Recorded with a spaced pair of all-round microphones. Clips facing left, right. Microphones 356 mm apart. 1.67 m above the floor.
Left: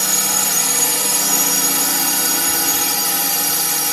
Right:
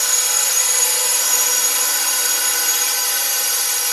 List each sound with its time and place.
0.0 s a drone: 70° left (ahead or behind)